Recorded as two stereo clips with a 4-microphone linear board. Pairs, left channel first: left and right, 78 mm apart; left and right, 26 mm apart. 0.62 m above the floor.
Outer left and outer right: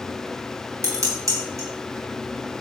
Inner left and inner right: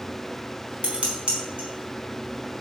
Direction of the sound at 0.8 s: 40° right (ahead or behind).